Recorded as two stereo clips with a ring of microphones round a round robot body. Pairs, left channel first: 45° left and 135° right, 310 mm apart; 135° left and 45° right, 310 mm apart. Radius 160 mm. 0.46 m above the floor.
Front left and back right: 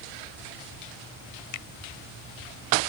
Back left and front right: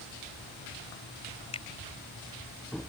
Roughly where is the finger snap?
Ahead left.